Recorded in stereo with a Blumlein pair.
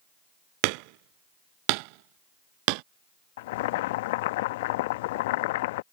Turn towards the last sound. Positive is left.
turn(degrees=50)